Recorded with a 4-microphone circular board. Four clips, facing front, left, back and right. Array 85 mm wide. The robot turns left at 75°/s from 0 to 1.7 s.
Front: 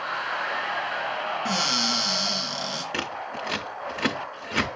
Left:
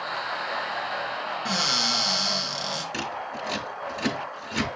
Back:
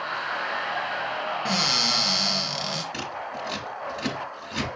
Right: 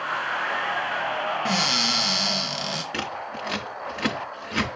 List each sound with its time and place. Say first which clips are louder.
1.4 s a cupboard door: right 3 dB, even; 115° right, 1.6 m; by 2.8 s 135° right, 1.6 m
2.9 s scissors: right 1 dB, front 1 dB; 20° right, 0.7 m